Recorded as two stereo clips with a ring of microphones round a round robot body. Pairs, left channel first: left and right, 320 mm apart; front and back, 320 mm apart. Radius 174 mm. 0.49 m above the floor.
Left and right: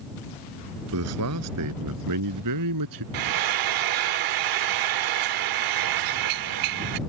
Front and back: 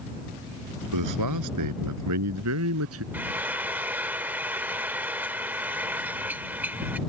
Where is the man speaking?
140° right; by 3.0 s 125° right.